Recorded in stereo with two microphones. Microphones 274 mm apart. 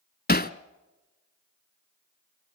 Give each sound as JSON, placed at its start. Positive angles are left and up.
{"t": 0.3, "sound": "hammering", "side_deg": 35, "distance_m": 0.7}